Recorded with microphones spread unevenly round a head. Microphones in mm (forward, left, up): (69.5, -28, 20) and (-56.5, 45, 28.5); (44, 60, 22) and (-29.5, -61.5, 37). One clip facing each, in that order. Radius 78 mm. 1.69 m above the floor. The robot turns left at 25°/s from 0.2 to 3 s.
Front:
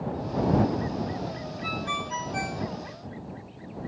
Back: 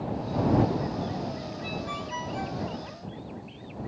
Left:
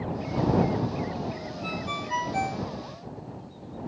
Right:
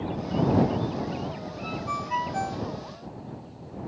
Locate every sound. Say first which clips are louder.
1.6 s a ringtone: front 1 dB, right 1 dB; 5° left; by 2.6 s 20° right